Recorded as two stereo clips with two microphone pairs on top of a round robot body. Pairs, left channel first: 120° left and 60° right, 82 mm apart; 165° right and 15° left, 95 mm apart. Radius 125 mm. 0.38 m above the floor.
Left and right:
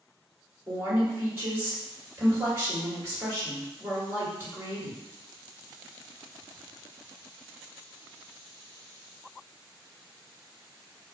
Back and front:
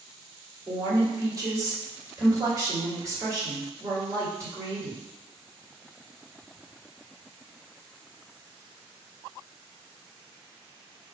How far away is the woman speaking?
About 1.8 m.